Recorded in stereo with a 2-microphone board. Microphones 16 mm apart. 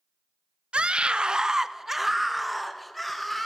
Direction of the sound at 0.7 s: 80° right.